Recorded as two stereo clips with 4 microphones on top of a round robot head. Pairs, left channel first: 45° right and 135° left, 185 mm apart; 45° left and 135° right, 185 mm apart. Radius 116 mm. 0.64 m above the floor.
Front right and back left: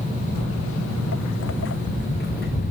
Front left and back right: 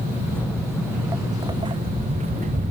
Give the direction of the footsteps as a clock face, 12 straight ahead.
1 o'clock.